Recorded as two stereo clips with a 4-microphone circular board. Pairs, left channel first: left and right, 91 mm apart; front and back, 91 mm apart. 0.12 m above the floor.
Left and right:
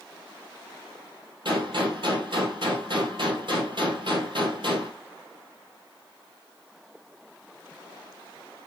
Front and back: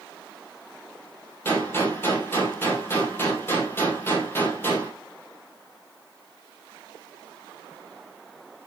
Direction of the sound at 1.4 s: 65° right.